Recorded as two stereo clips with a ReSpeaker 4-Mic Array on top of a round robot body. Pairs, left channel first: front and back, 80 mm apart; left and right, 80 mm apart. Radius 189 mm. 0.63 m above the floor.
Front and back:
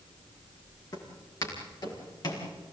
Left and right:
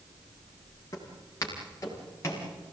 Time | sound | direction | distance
0.9 | footsteps | 40° left | 6.5 m